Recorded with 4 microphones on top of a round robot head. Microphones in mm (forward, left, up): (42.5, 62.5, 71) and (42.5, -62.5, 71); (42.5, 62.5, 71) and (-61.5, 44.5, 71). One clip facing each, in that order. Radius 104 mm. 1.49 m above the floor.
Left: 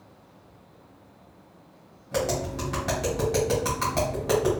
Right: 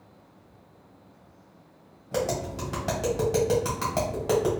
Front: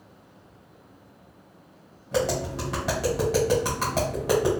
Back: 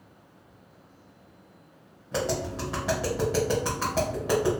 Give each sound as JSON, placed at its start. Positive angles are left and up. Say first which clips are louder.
{"t": 2.1, "sound": "tapping", "louder": "left 1 dB, front 3 dB", "azimuth_deg": -30, "distance_m": 1.3}